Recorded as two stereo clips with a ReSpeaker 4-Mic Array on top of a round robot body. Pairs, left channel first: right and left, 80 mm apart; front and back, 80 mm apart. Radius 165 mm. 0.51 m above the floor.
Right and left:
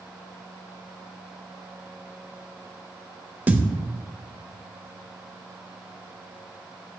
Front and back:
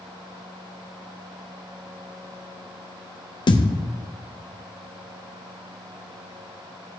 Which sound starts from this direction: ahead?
A thud, at 3.5 s.